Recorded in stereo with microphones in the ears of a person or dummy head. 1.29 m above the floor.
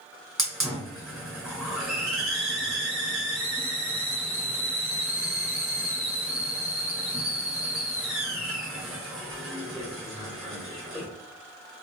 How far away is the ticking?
I don't hear ticking.